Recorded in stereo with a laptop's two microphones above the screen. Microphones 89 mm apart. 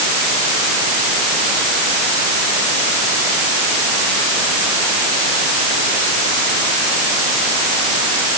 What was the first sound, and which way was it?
Only background noise.